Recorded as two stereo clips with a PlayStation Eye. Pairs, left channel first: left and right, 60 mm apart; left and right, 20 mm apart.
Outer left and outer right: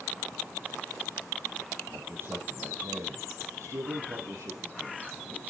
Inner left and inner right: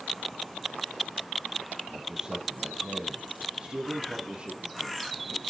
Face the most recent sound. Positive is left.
turn(degrees=-70)  # may be behind; listen again after turning